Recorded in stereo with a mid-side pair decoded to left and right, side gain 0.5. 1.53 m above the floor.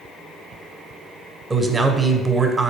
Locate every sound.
1.5 s a man speaking: 25° right, 0.8 m